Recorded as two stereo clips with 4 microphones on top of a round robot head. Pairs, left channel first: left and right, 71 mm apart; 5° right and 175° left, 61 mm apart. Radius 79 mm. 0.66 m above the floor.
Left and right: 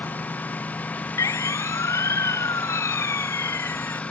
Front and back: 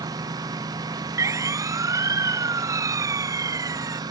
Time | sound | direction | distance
0.0 | a lawn mower | 160° left | ?
1.2 | a siren | 140° left | ?